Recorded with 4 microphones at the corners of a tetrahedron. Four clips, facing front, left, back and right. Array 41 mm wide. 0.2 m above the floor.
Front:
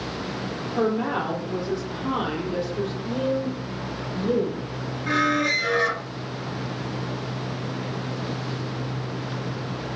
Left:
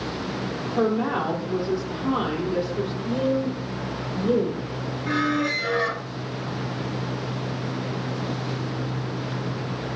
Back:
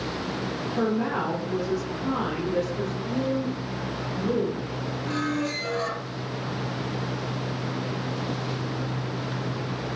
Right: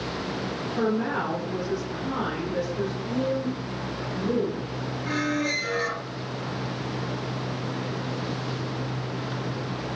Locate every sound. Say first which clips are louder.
0.8 s a woman speaking: left 3 dB, front 2 dB; 30° left, 6 m
3.0 s a woman speaking: left 4 dB, front 1 dB; 40° left, 6 m
5.1 s a squeak: left 3 dB, front 7 dB; 20° left, 1.0 m